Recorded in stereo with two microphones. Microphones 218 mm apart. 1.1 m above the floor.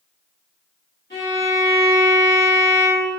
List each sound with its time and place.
1.1 s a violin: 60° left (ahead or behind), 1.6 m